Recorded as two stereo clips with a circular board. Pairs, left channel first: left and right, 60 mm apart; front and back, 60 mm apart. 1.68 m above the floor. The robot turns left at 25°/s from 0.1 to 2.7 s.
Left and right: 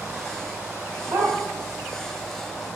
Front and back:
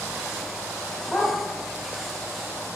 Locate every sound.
1.1 s a dog barking: 80° right, 3 m; by 1.4 s 85° right, 3 m